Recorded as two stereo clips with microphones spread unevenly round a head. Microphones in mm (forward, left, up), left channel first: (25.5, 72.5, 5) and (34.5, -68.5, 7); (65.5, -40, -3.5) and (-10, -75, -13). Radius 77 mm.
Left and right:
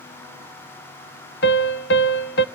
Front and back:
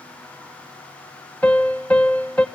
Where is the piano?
105° left, 1.1 m.